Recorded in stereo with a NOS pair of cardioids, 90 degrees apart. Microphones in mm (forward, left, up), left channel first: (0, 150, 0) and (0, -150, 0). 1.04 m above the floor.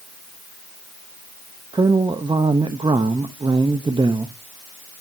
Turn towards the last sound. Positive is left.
turn(degrees=-15)